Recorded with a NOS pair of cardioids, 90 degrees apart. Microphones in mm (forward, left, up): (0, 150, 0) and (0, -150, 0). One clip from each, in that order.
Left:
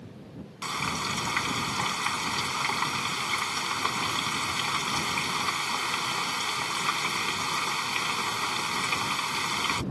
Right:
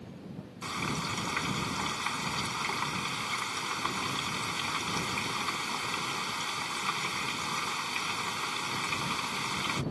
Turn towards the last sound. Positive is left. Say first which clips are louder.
# left 4 dB
turn(degrees=30)